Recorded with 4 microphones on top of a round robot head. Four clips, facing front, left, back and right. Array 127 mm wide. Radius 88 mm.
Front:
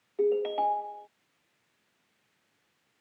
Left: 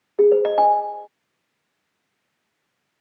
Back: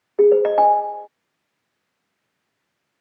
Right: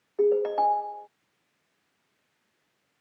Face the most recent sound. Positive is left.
turn(degrees=150)